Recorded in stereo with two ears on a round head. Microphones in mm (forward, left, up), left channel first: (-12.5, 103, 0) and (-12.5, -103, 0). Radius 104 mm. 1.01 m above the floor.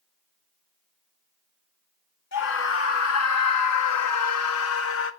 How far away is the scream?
About 2.0 m.